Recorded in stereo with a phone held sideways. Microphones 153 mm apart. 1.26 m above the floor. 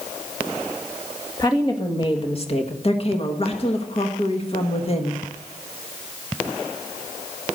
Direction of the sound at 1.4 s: 25° left (ahead or behind).